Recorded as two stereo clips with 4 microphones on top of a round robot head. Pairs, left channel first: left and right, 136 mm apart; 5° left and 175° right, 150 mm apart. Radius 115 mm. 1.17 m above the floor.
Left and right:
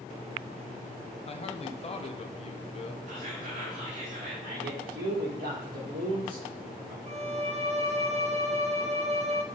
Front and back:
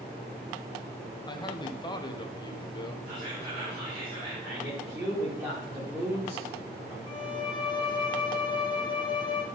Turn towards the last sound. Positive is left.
turn(degrees=-55)